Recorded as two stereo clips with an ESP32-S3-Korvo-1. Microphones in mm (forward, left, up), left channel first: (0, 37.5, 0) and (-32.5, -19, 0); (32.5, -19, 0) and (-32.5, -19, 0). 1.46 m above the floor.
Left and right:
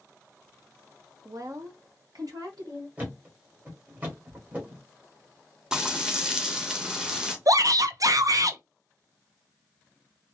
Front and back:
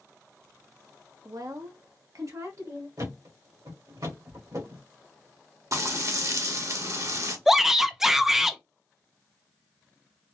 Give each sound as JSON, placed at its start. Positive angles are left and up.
{"t": 1.2, "sound": "a woman speaking", "azimuth_deg": -155, "distance_m": 0.6}
{"t": 3.0, "sound": "a thud", "azimuth_deg": 175, "distance_m": 1.9}
{"t": 5.7, "sound": "frying", "azimuth_deg": 160, "distance_m": 0.9}
{"t": 7.5, "sound": "a shout", "azimuth_deg": -95, "distance_m": 0.6}